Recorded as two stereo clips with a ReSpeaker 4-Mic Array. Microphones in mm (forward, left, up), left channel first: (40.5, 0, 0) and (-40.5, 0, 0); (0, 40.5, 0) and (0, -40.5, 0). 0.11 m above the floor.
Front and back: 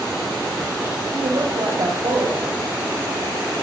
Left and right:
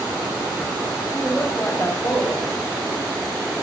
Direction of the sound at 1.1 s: 150° left.